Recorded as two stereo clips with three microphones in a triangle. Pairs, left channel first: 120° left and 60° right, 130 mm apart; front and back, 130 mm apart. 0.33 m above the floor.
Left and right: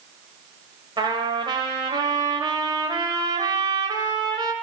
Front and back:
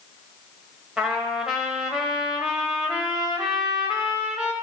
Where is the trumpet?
95° right, 1.5 m.